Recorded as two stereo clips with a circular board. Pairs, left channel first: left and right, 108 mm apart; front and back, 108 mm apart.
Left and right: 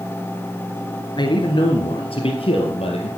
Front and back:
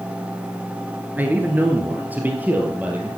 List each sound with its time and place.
1.2 s a man speaking: 115° left, 1.5 m; by 3.1 s 105° left, 3 m